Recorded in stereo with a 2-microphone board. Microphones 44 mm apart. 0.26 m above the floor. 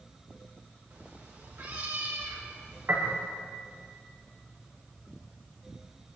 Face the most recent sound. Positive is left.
turn(degrees=-75)  # may be behind; listen again after turning